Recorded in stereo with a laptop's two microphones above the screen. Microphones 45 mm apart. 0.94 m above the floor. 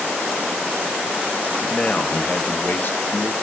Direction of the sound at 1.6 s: 20° left (ahead or behind).